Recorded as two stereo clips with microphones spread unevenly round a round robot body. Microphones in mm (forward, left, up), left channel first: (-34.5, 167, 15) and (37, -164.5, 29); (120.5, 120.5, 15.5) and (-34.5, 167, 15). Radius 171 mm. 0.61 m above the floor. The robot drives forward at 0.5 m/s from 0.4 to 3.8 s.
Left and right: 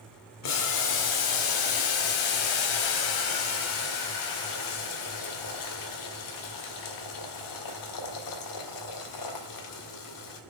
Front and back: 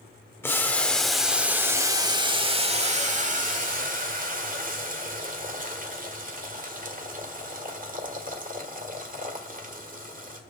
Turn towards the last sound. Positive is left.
turn(degrees=130)